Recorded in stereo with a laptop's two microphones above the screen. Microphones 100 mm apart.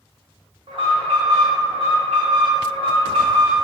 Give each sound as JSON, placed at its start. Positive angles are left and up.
{"t": 0.7, "sound": "an alarm", "side_deg": -65, "distance_m": 0.7}